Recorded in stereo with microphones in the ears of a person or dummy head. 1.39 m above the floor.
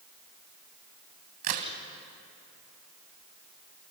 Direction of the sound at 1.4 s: 45° right (ahead or behind).